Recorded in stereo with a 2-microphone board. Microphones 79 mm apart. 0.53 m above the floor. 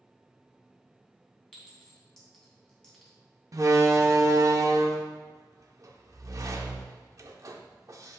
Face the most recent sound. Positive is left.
turn(degrees=-45)  # may be behind; listen again after turning